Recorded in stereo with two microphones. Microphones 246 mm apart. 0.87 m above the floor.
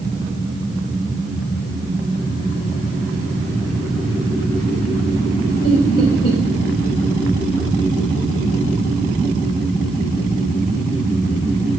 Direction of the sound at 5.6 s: 65° left (ahead or behind).